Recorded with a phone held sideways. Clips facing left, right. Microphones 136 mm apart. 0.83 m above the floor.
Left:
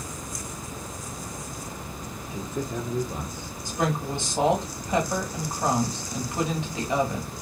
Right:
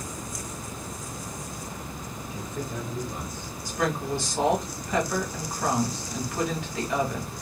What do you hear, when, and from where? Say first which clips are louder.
2.3 s a man speaking: left 4 dB; 25° left (ahead or behind), 0.7 m; by 3.5 s 30° left (ahead or behind), 1.1 m
3.6 s a woman speaking: even; 25° left (ahead or behind), 1.2 m